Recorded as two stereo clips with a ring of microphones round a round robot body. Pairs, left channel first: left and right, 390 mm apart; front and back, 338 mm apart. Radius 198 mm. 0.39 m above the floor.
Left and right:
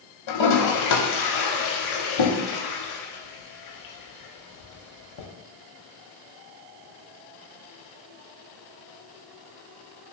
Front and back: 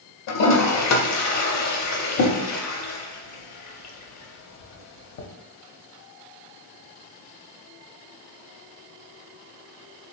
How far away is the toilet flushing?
About 0.6 m.